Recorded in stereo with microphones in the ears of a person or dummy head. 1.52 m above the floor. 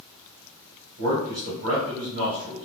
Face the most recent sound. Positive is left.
turn(degrees=-80)